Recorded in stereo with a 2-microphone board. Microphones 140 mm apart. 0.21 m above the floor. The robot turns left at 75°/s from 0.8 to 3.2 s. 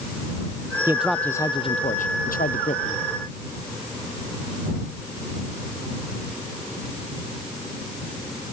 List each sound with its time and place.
0.9 s a man speaking: 160° right; by 3.0 s 35° left